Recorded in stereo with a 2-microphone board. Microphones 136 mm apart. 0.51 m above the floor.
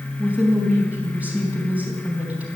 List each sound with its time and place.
0.2 s a woman speaking: 10° right (ahead or behind), 3.5 m